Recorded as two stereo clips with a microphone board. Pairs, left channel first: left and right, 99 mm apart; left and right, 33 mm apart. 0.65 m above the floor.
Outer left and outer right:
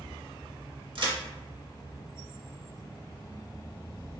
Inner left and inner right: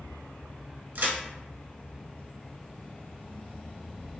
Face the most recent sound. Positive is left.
turn(degrees=-60)  # may be behind; listen again after turning